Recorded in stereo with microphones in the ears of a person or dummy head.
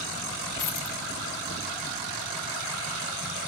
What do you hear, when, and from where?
0.6 s a dropped coin: 45° left (ahead or behind), 1.5 m